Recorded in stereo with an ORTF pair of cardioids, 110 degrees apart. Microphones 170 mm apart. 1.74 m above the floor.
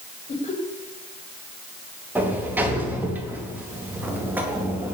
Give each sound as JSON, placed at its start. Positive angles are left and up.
{"t": 0.3, "sound": "laughter", "azimuth_deg": 40, "distance_m": 7.0}
{"t": 2.1, "sound": "a sliding door", "azimuth_deg": -10, "distance_m": 3.5}